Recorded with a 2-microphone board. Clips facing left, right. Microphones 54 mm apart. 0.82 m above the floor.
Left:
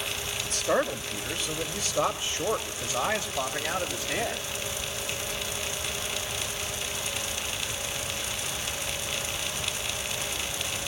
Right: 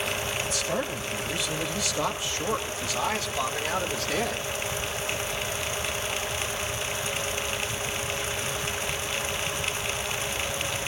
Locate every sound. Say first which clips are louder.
0.5 s a man speaking: left 3 dB; 50° left (ahead or behind), 3 m; by 4.5 s 15° left (ahead or behind), 3.5 m